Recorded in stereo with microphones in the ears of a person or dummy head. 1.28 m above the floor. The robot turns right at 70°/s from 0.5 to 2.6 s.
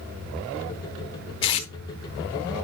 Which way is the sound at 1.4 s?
25° left (ahead or behind).